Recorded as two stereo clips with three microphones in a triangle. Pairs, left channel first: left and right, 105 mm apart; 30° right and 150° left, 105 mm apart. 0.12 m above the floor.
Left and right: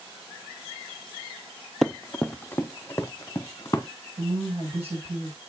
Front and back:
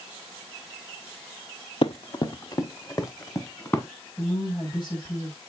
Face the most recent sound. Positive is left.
turn(degrees=-70)